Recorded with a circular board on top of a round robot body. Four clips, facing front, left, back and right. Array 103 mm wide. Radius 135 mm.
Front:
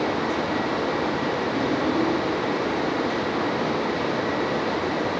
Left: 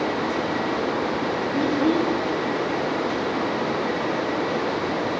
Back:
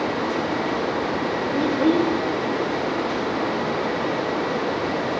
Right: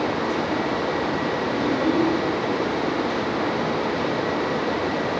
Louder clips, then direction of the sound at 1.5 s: Left 1 dB, back 7 dB; straight behind.